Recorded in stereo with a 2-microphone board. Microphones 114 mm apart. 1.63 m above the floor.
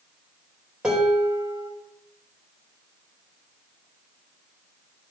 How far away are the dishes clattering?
About 3.5 m.